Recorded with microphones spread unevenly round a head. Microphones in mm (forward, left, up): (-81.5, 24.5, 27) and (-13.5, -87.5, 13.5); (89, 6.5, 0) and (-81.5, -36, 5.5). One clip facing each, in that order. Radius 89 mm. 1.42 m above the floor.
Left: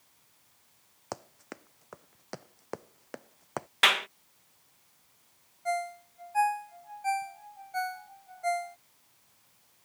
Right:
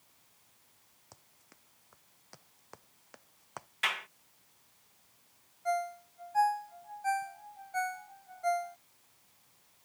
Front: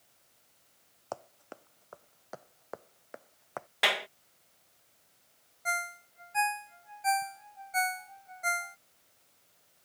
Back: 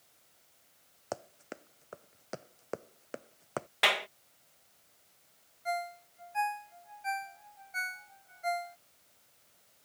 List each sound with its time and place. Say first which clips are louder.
1.1 s running footsteps: left 22 dB, back 2 dB; 125° left; by 3.7 s 145° left
3.8 s a clap: left 9 dB, even; 100° left
5.7 s a ringtone: left 1 dB, back 4 dB; 40° left